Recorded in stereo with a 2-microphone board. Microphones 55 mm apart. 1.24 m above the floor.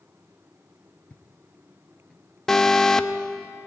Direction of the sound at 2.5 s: 10° left (ahead or behind).